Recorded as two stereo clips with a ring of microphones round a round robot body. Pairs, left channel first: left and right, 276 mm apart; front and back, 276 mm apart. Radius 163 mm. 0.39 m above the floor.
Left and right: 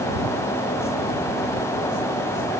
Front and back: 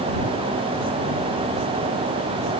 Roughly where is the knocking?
No knocking in this recording.